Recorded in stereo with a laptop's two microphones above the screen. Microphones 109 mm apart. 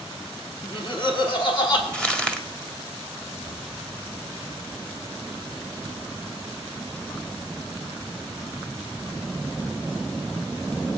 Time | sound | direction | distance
0.6 | laughter | 50° left (ahead or behind) | 3 m
1.9 | crumpling | 10° left (ahead or behind) | 1.6 m